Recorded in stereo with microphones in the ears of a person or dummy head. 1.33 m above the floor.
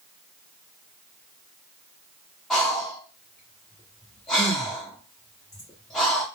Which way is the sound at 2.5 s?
Centre (ahead or behind).